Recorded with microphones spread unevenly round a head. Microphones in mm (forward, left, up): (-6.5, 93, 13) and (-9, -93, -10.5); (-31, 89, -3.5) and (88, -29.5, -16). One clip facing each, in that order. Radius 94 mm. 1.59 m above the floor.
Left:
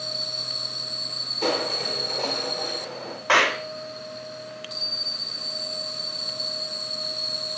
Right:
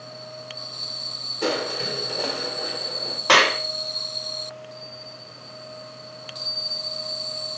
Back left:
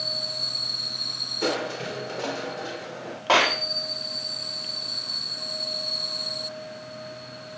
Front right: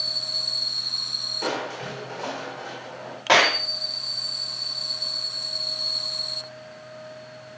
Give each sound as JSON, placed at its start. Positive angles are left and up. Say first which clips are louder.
{"t": 1.4, "sound": "crushing", "louder": "even, back left 2 dB", "azimuth_deg": -170, "distance_m": 3.0}
{"t": 3.3, "sound": "a clap", "louder": "right 3 dB, front right 2 dB", "azimuth_deg": -130, "distance_m": 3.5}